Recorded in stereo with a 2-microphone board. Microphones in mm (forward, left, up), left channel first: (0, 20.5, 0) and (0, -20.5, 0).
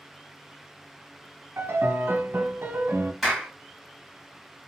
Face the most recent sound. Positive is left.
turn(degrees=0)  # may be behind; listen again after turning